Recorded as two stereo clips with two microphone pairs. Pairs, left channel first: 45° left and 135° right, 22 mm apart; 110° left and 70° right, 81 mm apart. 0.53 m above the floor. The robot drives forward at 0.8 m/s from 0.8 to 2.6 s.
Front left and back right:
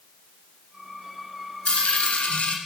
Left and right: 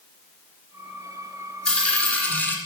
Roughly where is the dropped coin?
Ahead left.